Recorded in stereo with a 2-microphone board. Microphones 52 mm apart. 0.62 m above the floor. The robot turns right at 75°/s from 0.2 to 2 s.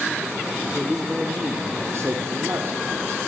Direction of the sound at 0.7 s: 170° left.